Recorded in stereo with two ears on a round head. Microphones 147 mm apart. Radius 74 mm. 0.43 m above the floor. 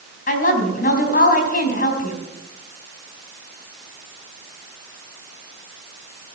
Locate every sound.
0.3 s a woman speaking: 55° left (ahead or behind), 4 m